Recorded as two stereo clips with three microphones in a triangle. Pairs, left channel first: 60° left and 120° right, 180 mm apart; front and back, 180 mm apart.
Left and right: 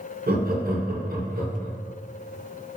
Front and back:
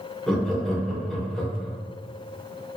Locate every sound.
0.3 s laughter: 90° right, 0.8 m